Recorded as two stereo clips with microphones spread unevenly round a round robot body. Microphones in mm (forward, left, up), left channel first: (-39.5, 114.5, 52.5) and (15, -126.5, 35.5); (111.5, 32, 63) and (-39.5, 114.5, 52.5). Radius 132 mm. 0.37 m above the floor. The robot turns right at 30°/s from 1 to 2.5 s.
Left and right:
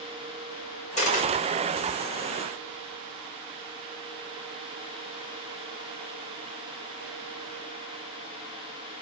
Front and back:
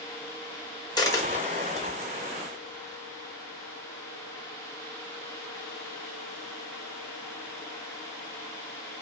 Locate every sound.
1.0 s a dropped coin: 40° left, 1.0 m; by 1.9 s 65° left, 1.0 m